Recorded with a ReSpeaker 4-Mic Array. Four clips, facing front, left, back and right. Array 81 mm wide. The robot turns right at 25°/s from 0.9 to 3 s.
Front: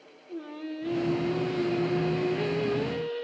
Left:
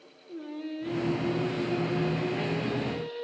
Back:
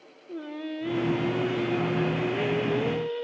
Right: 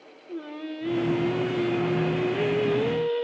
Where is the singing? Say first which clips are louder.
Right 2 dB, back 2 dB; 150° right, 2.0 m; by 3.2 s 95° right, 2.0 m.